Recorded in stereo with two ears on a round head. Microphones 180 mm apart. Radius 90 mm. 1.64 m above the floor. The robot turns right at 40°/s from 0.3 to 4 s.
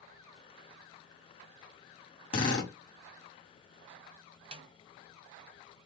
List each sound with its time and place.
2.3 s a drill: 30° left (ahead or behind), 1.9 m; by 2.7 s 15° left (ahead or behind), 1.9 m
4.5 s a snare drum: 25° right (ahead or behind), 0.9 m